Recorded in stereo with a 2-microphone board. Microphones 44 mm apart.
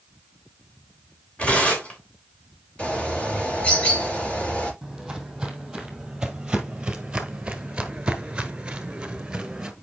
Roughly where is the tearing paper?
Left.